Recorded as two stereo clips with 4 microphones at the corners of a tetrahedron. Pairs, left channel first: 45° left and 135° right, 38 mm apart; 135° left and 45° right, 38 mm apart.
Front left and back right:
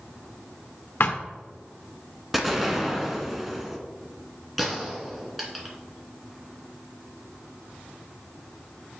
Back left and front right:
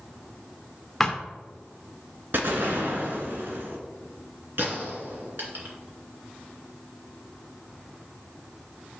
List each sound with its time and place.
1.0 s a thud: 55° left, 1.4 m
2.3 s an explosion: 50° right, 1.4 m
4.6 s a gunshot: 45° right, 2 m